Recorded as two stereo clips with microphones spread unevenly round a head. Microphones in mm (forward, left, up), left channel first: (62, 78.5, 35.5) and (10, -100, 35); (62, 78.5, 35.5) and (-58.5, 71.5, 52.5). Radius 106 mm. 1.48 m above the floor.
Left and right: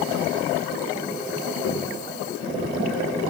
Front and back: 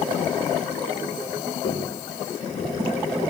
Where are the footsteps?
50° left, 7.5 m; by 2.7 s 40° left, 7.5 m.